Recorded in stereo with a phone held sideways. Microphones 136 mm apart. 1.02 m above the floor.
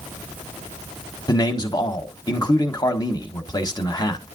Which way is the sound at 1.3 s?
30° left (ahead or behind).